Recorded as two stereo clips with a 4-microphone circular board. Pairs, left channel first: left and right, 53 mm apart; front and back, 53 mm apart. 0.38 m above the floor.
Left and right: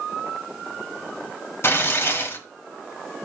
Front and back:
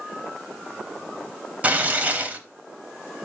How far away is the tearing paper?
About 1.0 m.